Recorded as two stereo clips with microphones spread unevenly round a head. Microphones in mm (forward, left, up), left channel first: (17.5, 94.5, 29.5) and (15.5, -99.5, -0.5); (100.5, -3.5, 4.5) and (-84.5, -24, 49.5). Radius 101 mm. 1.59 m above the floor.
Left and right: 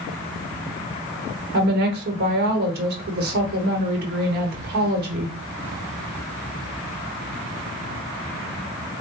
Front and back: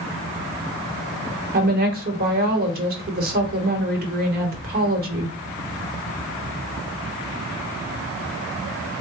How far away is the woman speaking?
About 1.0 m.